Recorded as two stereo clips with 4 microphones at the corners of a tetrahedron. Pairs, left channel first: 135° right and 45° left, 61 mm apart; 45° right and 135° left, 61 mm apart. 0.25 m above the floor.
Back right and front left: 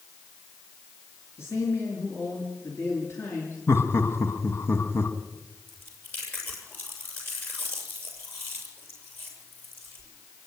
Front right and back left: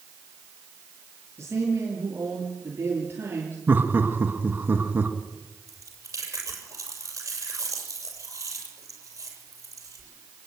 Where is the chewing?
170° left, 7.5 m.